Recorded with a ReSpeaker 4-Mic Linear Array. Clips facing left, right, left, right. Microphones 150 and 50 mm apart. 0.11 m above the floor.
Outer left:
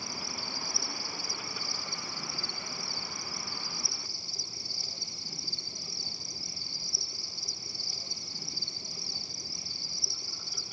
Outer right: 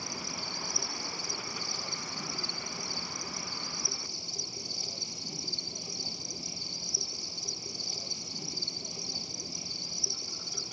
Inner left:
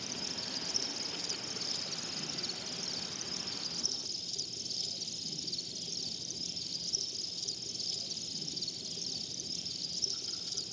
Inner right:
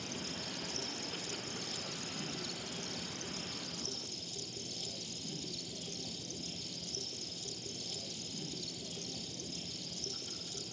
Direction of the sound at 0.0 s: 20° right (ahead or behind).